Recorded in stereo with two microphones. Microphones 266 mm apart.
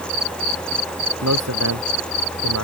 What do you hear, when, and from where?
1.2 s a man speaking: 80° right